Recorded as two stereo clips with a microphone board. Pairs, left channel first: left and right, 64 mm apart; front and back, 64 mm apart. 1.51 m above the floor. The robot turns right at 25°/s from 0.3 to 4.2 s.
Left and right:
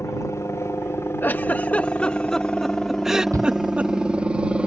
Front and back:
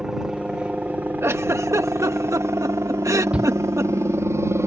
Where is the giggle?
140° left; by 3.9 s 150° right.